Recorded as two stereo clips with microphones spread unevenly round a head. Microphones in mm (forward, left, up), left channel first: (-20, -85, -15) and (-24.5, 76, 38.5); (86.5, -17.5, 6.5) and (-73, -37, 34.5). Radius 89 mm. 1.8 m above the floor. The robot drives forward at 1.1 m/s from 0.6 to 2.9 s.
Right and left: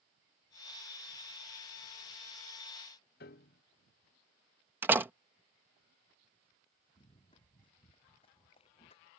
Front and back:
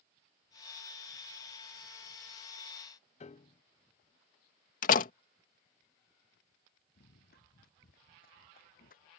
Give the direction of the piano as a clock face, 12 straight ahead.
1 o'clock.